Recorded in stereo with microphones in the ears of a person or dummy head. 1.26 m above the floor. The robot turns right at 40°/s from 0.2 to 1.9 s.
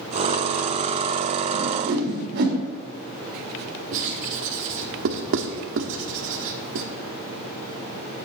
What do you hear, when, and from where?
1.5 s a whoosh: 45° right (ahead or behind), 2.0 m; by 2.6 s 55° right (ahead or behind), 2.0 m
3.9 s writing: 60° right (ahead or behind), 1.2 m